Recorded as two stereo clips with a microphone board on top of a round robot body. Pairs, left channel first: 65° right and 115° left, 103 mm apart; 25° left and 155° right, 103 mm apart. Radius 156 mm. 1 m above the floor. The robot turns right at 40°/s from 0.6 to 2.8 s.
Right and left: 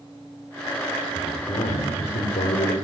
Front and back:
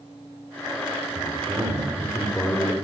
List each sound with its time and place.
1.1 s a man speaking: 110° right, 4.5 m; by 2.8 s 45° right, 4.5 m